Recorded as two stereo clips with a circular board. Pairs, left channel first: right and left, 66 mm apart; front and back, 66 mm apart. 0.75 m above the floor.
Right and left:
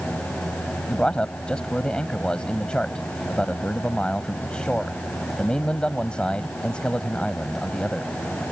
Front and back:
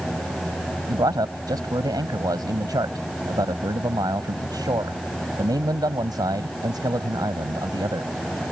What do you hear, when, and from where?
0.9 s a man speaking: 165° right